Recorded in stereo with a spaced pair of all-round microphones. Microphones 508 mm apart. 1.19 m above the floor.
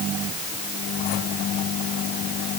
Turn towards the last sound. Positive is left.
No sound to turn to.